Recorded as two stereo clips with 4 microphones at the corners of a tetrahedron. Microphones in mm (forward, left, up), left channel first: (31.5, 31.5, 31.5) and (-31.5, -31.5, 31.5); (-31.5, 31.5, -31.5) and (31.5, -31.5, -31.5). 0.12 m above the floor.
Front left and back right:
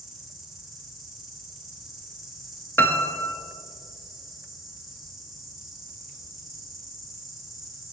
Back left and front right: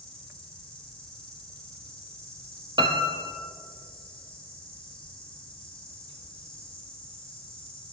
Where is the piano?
20° right, 0.6 m.